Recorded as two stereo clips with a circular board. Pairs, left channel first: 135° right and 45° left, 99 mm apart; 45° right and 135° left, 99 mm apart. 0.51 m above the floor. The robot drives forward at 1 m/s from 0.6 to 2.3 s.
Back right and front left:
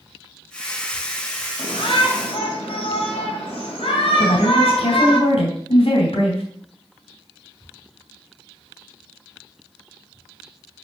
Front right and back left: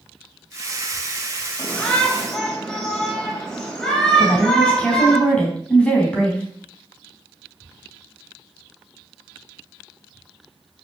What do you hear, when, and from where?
1.6 s a shout: 120° right, 3 m; by 5.2 s 130° right, 3.5 m
4.2 s a woman speaking: 125° right, 3.5 m